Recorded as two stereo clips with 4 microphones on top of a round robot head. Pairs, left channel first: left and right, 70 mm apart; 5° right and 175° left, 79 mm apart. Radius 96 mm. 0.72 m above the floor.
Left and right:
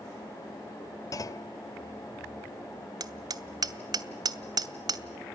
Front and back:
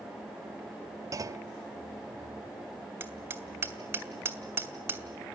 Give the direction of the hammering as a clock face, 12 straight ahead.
4 o'clock.